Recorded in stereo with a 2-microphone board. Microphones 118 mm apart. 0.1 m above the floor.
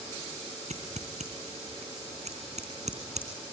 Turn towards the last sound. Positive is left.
turn(degrees=-70)  # may be behind; listen again after turning